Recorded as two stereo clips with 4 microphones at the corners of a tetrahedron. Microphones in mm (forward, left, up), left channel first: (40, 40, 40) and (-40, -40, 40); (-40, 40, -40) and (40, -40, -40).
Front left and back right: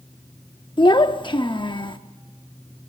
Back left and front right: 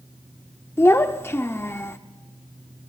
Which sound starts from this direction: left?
A child speaking, at 0.8 s.